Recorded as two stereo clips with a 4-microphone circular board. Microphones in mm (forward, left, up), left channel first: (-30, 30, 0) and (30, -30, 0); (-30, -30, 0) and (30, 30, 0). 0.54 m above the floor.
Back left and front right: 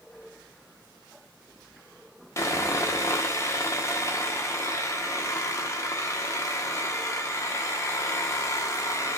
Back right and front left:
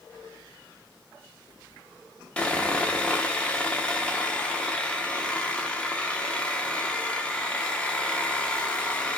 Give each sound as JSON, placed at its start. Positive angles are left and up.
{"t": 2.4, "sound": "sawing", "azimuth_deg": 155, "distance_m": 0.6}